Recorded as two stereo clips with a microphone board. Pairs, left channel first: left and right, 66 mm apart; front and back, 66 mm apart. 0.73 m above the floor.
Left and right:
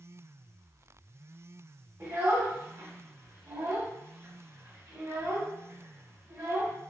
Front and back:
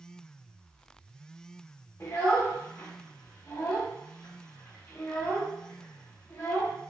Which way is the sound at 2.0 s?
45° right.